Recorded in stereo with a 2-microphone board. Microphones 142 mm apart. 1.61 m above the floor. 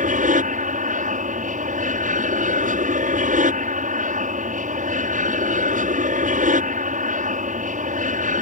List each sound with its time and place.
0.0 s an aircraft: 65° right (ahead or behind)